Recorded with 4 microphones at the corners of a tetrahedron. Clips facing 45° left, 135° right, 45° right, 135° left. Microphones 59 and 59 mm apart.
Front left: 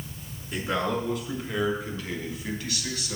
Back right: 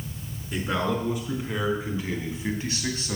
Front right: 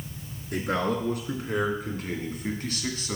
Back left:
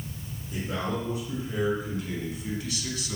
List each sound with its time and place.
0.5 s a man speaking: 50° right, 4 m; by 3.2 s 90° right, 2.5 m